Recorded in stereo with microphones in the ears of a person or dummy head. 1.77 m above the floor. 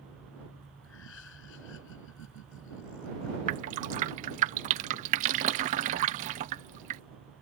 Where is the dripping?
45° right (ahead or behind).